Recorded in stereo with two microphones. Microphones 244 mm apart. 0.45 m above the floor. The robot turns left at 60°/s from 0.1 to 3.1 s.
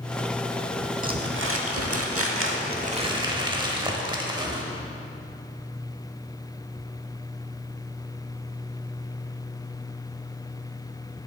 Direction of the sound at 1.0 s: 35° right.